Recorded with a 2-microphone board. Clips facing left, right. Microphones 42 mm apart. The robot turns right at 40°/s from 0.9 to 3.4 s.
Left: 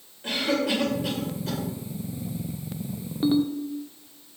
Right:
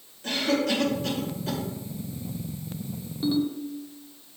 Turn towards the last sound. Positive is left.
turn(degrees=35)  # may be behind; listen again after turning